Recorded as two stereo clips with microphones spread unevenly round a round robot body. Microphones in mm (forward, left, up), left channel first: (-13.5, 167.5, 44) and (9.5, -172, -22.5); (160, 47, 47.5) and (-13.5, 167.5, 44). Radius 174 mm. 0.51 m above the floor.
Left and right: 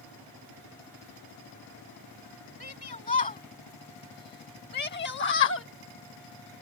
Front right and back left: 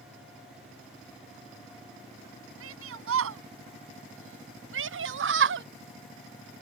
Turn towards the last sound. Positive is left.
turn(degrees=150)